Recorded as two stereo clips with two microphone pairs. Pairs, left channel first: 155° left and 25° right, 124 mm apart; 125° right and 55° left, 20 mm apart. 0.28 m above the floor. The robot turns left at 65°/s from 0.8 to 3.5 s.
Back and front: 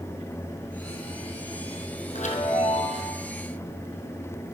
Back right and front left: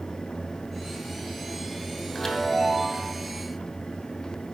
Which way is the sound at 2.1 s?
170° left.